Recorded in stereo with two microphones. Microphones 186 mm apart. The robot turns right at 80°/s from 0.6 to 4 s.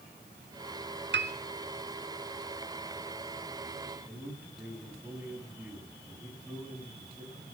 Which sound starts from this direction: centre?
A man speaking, at 4.0 s.